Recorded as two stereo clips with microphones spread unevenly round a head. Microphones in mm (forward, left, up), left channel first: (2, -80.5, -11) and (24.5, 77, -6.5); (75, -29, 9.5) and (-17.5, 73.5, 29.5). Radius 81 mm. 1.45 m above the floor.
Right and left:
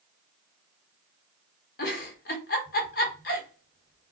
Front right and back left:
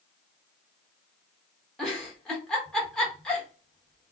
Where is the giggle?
135° right, 1.3 m.